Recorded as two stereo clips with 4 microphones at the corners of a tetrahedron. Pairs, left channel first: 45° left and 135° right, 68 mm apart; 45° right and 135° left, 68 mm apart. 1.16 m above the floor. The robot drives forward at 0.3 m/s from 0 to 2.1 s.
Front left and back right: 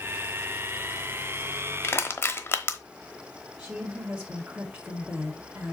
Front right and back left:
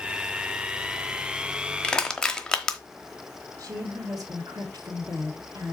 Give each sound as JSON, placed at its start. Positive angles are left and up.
{"t": 1.8, "sound": "crushing", "azimuth_deg": 25, "distance_m": 1.2}
{"t": 3.6, "sound": "a woman speaking", "azimuth_deg": 145, "distance_m": 2.5}